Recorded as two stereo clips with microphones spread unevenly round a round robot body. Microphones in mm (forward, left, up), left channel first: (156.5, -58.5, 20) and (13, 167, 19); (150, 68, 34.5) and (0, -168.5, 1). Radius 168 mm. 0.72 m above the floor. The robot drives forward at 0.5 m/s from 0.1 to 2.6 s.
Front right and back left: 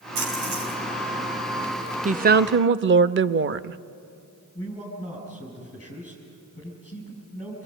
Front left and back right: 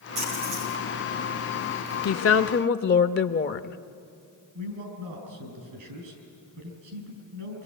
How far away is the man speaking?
About 6.5 m.